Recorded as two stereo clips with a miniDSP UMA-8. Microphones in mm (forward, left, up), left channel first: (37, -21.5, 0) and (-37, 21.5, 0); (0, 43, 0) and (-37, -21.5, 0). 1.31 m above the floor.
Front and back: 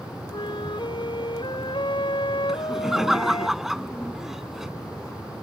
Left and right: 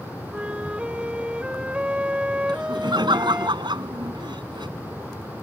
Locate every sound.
0.3 s a flute: 45° right
2.5 s laughter: 125° right